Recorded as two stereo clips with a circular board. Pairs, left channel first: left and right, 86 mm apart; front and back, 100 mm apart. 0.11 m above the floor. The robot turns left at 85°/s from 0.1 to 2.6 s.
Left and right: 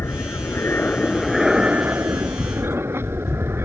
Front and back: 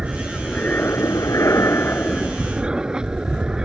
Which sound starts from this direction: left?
An aircraft, at 0.0 s.